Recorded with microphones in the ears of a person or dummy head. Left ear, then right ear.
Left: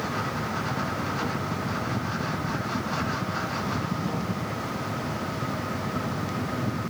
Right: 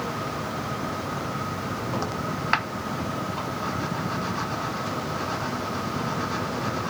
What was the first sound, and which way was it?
Only background noise.